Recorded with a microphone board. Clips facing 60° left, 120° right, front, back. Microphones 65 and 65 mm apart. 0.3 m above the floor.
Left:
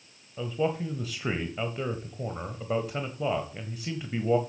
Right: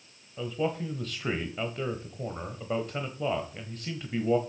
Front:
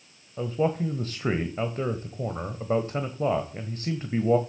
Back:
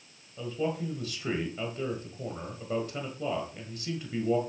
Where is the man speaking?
20° right, 1.2 m.